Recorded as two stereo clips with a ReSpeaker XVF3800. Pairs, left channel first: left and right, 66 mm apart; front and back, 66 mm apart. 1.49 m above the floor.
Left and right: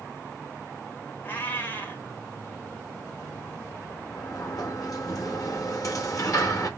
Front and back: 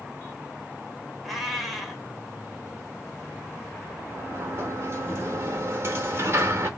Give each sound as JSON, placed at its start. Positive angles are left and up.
{"t": 1.2, "sound": "a cat meowing", "azimuth_deg": 90, "distance_m": 1.3}
{"t": 4.1, "sound": "a sliding door", "azimuth_deg": 125, "distance_m": 1.7}